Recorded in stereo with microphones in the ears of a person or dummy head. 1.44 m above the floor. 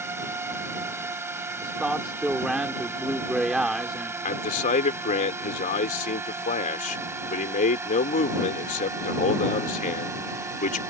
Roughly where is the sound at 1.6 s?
Centre.